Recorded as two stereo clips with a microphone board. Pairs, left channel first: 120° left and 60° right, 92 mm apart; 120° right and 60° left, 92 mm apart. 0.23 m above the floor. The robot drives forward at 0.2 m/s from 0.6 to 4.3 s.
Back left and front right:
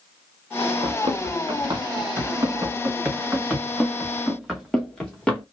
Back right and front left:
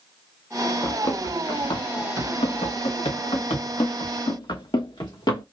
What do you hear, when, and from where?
0.8 s running footsteps: 75° right, 1.9 m; by 5.4 s 160° right, 3 m